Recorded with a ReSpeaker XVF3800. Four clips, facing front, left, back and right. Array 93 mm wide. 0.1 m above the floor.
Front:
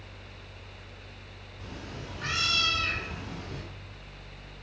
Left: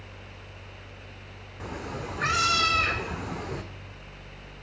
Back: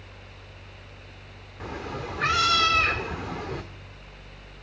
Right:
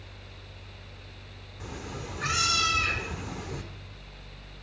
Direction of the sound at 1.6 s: 145° left.